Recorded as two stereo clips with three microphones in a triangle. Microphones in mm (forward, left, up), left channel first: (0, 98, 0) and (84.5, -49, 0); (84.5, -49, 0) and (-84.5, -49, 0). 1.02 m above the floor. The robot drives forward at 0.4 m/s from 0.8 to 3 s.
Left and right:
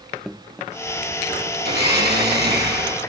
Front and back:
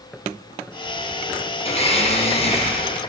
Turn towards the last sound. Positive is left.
turn(degrees=-55)